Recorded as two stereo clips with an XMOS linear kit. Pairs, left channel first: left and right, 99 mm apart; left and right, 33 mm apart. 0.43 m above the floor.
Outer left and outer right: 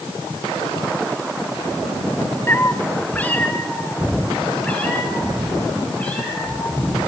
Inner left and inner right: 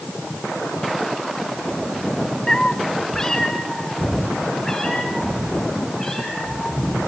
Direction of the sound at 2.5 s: 25° left (ahead or behind).